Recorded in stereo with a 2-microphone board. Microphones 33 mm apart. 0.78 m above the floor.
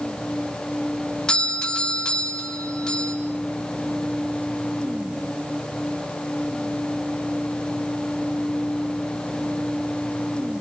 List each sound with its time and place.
1.3 s a doorbell: 25° left (ahead or behind), 4.5 m